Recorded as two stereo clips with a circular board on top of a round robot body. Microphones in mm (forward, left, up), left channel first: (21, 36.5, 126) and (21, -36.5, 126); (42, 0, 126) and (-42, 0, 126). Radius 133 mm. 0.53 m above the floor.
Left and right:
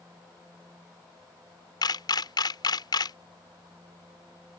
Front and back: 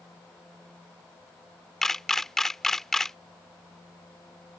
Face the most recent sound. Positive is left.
turn(degrees=85)